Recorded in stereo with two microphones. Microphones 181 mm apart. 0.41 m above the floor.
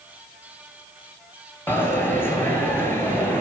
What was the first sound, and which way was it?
A dropped coin, 10° left (ahead or behind).